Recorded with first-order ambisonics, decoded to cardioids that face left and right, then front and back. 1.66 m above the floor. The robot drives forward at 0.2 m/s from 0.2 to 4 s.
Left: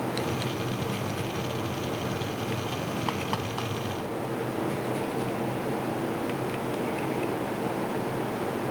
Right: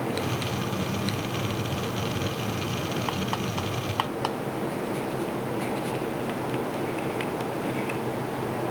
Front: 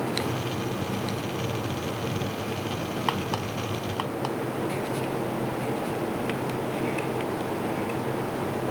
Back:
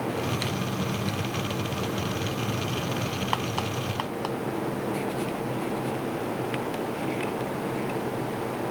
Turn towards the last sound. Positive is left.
No sound to turn to.